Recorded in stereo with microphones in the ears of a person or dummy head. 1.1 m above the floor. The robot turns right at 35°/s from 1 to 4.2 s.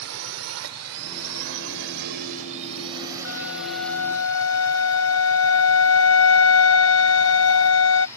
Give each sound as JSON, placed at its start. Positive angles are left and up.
{"t": 0.0, "sound": "a drone", "side_deg": -80}
{"t": 3.2, "sound": "a flute", "azimuth_deg": 75}